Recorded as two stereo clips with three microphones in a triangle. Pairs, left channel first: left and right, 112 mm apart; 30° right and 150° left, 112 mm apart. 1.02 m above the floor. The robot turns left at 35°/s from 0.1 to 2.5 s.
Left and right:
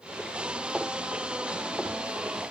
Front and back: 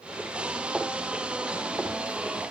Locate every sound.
Only background noise.